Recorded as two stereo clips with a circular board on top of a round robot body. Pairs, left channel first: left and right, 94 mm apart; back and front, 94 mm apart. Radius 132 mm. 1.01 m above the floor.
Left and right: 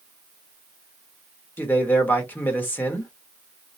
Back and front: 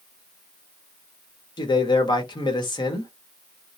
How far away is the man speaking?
About 1.2 m.